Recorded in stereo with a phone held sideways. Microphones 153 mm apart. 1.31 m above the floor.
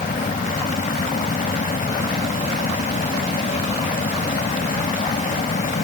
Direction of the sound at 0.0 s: 85° left.